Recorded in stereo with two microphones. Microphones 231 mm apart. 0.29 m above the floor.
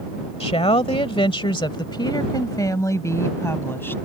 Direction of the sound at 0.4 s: 25° left (ahead or behind).